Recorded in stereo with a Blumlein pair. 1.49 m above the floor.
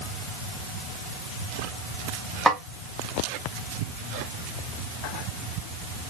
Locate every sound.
2.5 s a snare drum: 5° right, 0.6 m